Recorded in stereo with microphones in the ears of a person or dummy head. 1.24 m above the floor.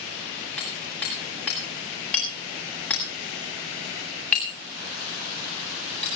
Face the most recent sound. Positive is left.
turn(degrees=10)  # may be behind; listen again after turning